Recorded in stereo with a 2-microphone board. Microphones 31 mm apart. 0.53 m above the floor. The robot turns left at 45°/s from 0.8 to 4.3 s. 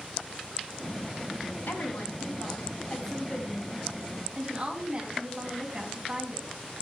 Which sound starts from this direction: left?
A woman speaking, at 1.7 s.